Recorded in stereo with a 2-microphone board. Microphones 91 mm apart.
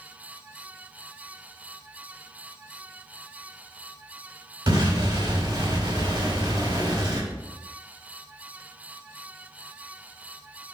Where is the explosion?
75° right (ahead or behind), 4.5 m.